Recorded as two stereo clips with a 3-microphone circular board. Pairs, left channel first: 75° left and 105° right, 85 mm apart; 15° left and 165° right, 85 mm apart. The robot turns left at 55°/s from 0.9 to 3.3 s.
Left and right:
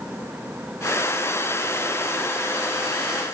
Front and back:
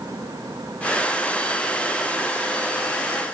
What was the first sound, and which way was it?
Only background noise.